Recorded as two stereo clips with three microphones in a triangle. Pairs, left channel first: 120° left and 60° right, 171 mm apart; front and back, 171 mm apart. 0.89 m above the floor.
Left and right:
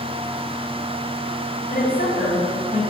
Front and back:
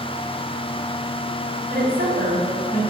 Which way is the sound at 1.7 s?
155° left.